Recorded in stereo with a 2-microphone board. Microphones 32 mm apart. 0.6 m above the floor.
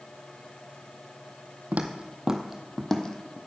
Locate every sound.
1.7 s footsteps: 55° right (ahead or behind), 1.2 m; by 3.4 s 30° left (ahead or behind), 1.8 m